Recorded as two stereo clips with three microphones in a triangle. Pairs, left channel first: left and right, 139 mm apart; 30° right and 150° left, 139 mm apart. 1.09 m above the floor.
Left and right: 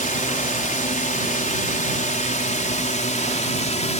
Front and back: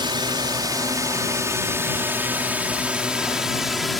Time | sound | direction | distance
0.0 | a drone | 95° left | ?